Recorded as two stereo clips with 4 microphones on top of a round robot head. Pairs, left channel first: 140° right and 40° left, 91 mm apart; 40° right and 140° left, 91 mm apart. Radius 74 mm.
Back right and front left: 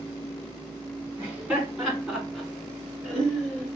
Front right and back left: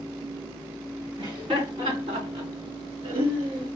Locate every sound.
1.2 s laughter: 110° left, 3.5 m; by 3.7 s 135° left, 4.5 m